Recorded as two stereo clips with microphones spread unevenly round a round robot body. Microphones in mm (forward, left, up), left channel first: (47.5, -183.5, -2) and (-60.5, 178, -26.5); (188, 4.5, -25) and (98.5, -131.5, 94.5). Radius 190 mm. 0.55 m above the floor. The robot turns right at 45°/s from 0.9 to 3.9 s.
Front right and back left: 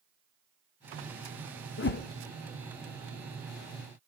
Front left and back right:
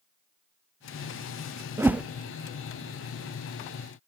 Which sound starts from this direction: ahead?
A whoosh, at 1.8 s.